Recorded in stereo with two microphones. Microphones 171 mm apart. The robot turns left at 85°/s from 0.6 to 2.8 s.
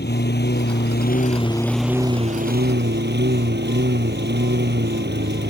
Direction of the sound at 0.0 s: 100° left.